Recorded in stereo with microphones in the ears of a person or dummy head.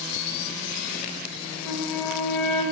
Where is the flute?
5° left (ahead or behind), 1.5 m.